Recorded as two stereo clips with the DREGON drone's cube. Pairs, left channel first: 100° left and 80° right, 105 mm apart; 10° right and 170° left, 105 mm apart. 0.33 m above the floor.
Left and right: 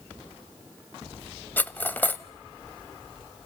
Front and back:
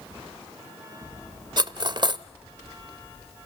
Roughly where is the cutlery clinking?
Behind.